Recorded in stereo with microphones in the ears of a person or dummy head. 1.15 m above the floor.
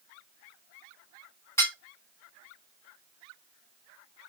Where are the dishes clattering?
15° left (ahead or behind), 1.2 m.